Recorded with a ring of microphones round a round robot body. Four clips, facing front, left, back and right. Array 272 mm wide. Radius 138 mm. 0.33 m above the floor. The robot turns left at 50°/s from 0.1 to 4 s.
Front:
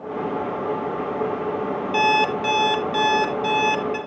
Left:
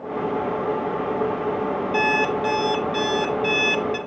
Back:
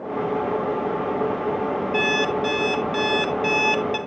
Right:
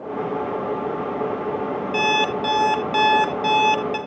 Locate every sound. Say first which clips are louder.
1.9 s an alarm clock: right 1 dB, front 6 dB; 40° right, 1.2 m; by 4.0 s 140° right, 1.2 m